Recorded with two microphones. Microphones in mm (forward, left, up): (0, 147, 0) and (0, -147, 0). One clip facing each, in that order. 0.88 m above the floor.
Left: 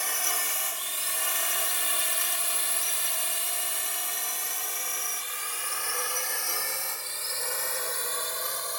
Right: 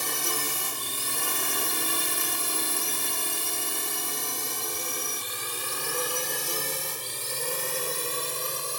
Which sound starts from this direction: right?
A drone, at 0.0 s.